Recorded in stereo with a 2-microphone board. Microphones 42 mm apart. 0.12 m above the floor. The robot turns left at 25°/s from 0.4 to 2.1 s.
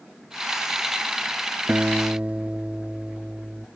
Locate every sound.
1.7 s a guitar: 40° right (ahead or behind), 0.6 m; by 3.7 s 30° right (ahead or behind), 0.6 m